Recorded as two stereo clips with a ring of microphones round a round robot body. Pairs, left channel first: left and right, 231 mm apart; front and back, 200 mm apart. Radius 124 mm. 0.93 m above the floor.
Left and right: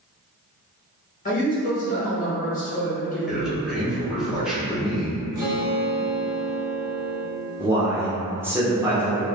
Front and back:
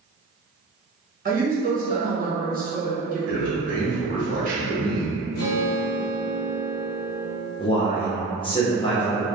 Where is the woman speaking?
140° left, 1.3 m.